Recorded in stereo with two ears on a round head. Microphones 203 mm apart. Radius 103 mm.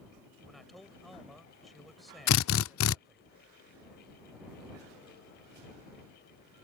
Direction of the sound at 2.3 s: 60° left (ahead or behind).